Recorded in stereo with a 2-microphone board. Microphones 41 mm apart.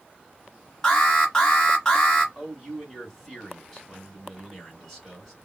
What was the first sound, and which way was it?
An alarm, 15° left (ahead or behind).